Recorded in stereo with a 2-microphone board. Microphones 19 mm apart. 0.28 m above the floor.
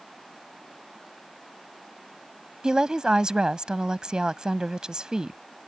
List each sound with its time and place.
2.6 s a woman speaking: 40° right (ahead or behind)